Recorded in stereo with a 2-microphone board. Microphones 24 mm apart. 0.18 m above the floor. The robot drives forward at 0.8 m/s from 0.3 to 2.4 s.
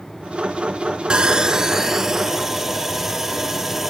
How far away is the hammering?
No hammering in this recording.